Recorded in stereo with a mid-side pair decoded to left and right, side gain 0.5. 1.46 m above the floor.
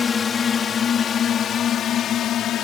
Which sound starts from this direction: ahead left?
A drone, at 0.0 s.